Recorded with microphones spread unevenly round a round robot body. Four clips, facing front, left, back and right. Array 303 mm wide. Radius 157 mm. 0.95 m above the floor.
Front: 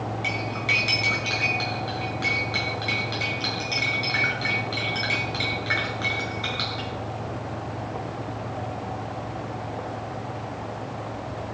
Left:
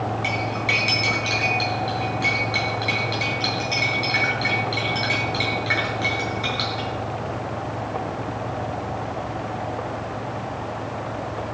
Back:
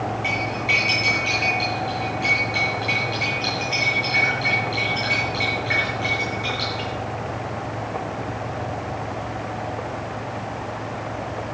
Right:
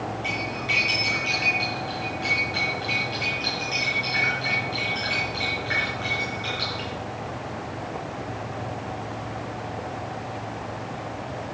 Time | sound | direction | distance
0.2 | cutlery clinking | 40° left | 10 m